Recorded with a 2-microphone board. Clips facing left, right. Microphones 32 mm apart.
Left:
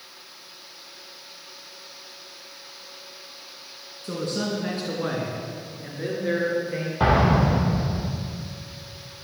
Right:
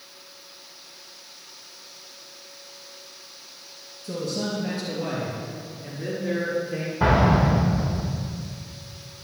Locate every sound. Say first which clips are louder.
4.0 s a man speaking: left 1 dB; 50° left (ahead or behind), 3 m; by 6.9 s 25° left (ahead or behind), 4.5 m
7.0 s an explosion: even; 55° left (ahead or behind), 6 m